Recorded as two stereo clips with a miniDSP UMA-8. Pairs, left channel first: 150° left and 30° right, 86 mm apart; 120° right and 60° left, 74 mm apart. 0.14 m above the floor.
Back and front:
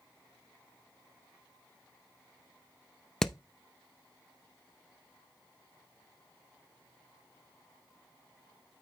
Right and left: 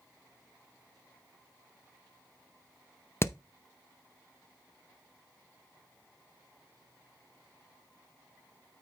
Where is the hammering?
130° right, 0.6 m.